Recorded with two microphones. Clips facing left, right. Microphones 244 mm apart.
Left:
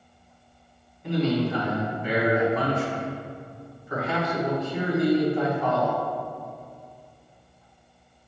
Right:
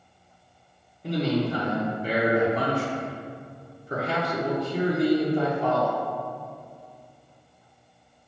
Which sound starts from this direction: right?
A man speaking, at 1.0 s.